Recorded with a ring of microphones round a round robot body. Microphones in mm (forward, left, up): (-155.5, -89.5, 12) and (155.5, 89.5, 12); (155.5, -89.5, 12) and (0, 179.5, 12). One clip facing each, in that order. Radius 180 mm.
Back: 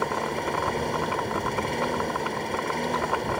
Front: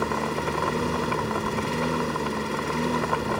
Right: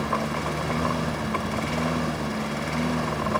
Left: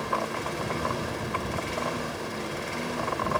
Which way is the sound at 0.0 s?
45° right.